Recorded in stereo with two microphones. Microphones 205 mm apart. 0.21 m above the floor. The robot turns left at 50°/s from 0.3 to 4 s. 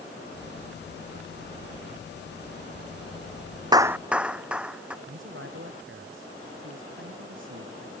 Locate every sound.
3.7 s a clap: 20° right (ahead or behind); by 5.0 s 5° right (ahead or behind)
5.1 s a man speaking: 65° right (ahead or behind)